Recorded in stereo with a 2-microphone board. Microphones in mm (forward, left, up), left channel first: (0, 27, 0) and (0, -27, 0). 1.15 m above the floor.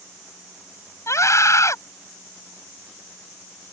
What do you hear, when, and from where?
1.1 s a scream: 55° left (ahead or behind)